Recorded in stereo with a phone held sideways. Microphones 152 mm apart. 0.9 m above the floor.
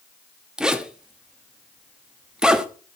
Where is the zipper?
5° right (ahead or behind), 0.9 m.